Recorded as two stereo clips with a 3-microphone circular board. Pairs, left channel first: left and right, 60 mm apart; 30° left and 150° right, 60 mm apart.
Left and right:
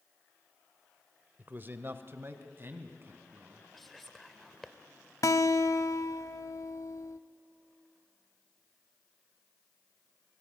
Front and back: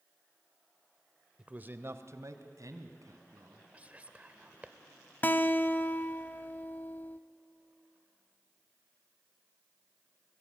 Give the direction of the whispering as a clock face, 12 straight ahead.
6 o'clock.